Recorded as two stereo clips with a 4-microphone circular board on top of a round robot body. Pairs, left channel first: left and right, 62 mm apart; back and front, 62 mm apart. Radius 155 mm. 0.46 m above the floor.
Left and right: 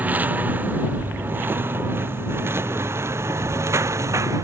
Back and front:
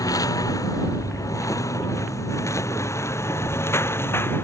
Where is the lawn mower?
155° right; by 4.5 s 130° right.